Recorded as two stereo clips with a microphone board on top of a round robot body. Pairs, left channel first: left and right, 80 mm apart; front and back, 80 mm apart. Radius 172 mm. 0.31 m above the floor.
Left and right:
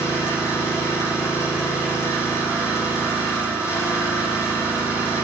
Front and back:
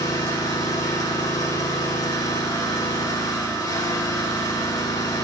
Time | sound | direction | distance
0.0 | an engine running | 40° left | 6.5 m